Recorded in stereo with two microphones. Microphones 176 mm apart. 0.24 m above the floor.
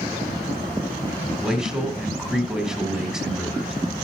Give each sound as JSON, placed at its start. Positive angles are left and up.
{"t": 1.4, "sound": "a man speaking", "side_deg": -5, "distance_m": 1.6}